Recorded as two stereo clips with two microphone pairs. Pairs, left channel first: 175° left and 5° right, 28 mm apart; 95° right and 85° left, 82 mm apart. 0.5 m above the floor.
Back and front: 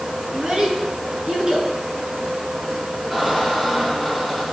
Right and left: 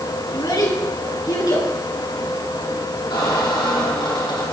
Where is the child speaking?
60° right, 4 m.